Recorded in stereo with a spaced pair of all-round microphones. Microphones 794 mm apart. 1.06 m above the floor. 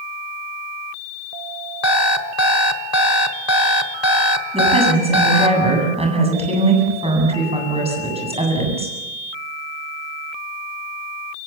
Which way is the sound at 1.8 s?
30° left (ahead or behind).